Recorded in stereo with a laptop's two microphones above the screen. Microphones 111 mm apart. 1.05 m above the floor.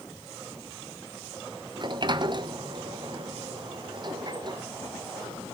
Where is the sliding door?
45° right (ahead or behind), 0.6 m.